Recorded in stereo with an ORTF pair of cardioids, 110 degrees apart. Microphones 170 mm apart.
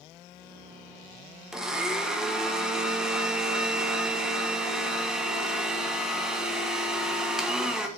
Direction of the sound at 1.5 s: 5° right.